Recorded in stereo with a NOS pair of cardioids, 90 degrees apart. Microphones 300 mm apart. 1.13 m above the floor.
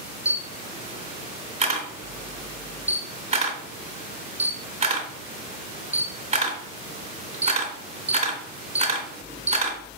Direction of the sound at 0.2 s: 20° right.